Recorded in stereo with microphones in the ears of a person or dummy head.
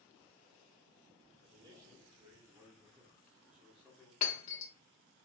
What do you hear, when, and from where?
1.4 s a man speaking: 30° right (ahead or behind), 3 m; by 4.1 s centre (ahead or behind), 2 m
4.2 s breaking glass: 50° left (ahead or behind), 2.0 m